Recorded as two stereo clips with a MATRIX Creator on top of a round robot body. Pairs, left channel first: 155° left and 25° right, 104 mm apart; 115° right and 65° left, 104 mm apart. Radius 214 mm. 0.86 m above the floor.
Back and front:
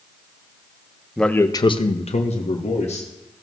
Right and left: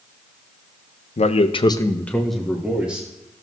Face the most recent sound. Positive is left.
turn(degrees=140)